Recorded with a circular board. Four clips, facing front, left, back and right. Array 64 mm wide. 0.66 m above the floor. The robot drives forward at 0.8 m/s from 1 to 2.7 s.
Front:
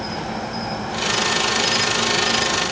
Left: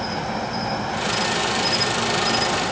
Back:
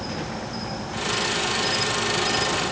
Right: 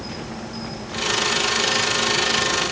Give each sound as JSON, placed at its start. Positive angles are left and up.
{"t": 0.0, "sound": "an insect", "azimuth_deg": 60, "distance_m": 3.0}